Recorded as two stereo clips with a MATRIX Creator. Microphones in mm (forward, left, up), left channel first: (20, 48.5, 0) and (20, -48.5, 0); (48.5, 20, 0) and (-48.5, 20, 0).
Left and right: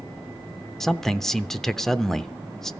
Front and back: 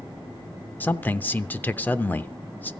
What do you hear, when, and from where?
0.8 s a man speaking: 15° left, 0.7 m